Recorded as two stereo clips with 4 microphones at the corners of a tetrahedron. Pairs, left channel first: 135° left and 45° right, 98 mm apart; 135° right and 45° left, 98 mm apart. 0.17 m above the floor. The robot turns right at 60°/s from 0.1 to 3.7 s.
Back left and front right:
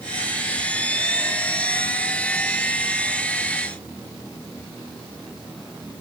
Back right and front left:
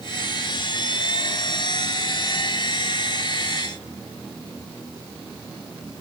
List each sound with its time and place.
Only background noise.